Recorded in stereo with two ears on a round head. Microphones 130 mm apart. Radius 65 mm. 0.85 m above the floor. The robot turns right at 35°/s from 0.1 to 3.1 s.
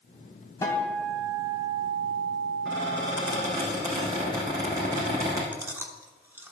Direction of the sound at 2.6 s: 10° right (ahead or behind).